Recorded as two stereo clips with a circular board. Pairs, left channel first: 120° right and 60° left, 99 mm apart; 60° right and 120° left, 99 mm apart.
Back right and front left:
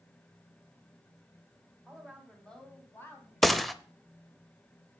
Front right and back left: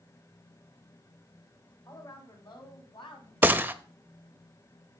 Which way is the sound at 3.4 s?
150° left.